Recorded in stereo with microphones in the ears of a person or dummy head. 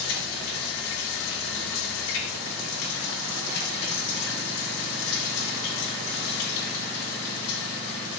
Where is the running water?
85° left, 6 m.